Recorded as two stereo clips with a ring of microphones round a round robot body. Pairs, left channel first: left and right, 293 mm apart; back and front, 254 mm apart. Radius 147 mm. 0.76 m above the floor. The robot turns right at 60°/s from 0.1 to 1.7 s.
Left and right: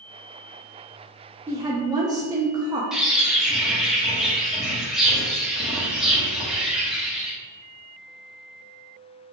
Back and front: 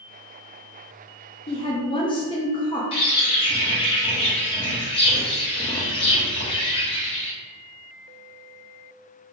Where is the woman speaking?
160° right, 0.5 m; by 2.8 s 145° right, 0.5 m.